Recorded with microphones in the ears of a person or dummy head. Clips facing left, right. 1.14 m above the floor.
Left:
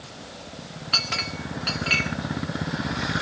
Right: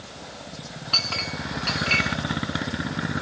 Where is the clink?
15° left (ahead or behind), 1.8 m.